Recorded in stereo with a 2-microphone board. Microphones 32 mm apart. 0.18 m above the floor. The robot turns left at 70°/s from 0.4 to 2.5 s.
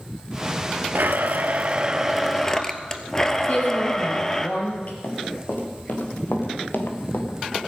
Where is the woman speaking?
55° left (ahead or behind), 4 m.